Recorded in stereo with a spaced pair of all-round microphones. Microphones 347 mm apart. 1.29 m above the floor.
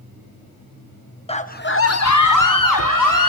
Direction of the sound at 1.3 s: 15° left (ahead or behind).